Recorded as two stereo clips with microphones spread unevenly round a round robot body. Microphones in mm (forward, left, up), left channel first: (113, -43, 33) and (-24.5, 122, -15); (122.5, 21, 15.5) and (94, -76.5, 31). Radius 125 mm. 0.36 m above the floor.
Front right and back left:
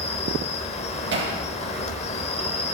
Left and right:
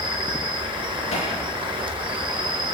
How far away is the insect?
About 2.0 m.